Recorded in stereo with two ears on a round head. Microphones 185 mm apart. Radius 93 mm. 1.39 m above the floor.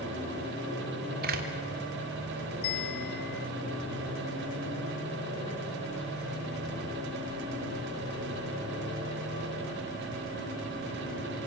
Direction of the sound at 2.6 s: 50° left (ahead or behind).